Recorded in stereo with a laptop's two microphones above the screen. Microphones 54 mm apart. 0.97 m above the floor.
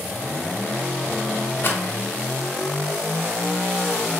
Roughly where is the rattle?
Left.